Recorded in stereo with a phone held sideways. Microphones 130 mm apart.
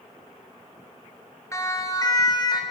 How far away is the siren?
About 3.5 m.